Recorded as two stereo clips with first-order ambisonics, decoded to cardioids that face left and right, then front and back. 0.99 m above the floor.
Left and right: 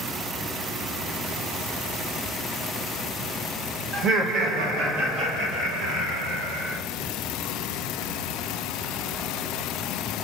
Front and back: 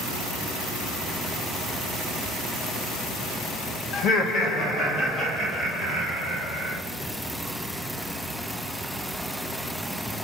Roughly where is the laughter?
Ahead right.